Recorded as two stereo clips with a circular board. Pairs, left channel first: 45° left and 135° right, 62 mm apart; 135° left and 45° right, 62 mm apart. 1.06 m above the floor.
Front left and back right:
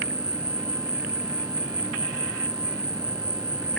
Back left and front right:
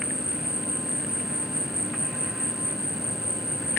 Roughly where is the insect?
Behind right.